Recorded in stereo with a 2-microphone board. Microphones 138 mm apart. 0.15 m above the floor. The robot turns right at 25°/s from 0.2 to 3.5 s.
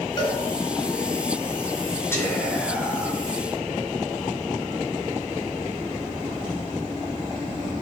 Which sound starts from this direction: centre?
Whispering, at 2.1 s.